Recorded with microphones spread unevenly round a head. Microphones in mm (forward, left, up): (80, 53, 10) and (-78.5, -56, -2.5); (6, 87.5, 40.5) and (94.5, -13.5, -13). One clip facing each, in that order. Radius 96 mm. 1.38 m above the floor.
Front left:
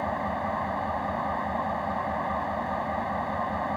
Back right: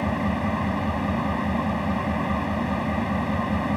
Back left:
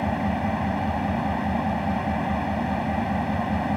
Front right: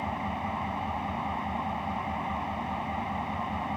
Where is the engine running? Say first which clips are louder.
Back right 5 dB, back left 8 dB; 165° left.